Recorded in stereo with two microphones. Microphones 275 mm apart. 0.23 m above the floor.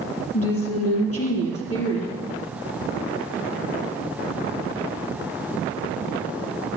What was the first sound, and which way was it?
A woman speaking, 55° left (ahead or behind).